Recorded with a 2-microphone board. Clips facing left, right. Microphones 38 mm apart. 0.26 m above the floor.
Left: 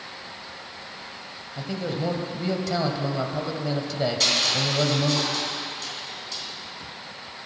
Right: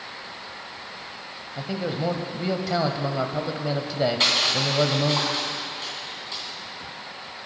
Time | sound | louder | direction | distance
1.6 | a man speaking | right 1 dB | 15° right (ahead or behind) | 1.0 m
4.2 | crushing | right 1 dB | 35° right (ahead or behind) | 2.5 m